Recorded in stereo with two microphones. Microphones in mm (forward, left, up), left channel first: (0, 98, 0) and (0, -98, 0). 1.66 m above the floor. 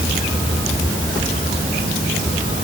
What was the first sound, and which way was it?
Only background noise.